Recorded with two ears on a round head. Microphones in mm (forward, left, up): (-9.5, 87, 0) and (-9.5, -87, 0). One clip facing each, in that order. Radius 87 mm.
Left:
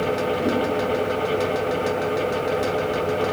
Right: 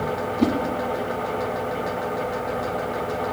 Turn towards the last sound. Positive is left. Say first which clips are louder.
# right 7 dB
turn(degrees=-80)